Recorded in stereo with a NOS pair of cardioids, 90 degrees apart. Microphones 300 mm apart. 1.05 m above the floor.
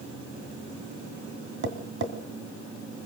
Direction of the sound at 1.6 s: 45° right.